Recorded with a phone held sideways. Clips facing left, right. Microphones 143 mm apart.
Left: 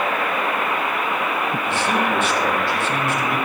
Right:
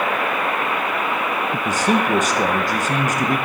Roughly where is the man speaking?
Right.